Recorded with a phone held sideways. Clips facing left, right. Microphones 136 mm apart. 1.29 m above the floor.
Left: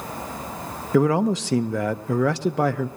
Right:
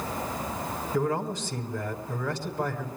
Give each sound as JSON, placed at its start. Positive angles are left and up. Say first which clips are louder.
{"t": 0.9, "sound": "a man speaking", "louder": "left 10 dB", "side_deg": 85, "distance_m": 0.8}